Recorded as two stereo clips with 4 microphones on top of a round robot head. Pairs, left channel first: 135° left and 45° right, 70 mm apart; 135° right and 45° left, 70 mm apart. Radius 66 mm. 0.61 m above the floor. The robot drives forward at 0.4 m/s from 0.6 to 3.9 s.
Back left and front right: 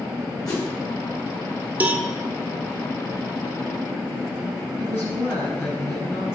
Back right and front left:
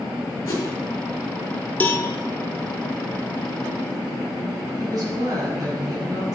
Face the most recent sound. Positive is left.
turn(degrees=75)